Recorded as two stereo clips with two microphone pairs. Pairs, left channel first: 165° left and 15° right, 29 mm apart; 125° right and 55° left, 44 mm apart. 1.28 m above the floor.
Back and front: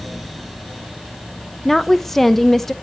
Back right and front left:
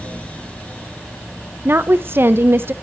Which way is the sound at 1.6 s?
85° left.